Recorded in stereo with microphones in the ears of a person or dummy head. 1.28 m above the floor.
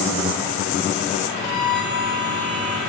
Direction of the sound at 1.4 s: 60° left (ahead or behind).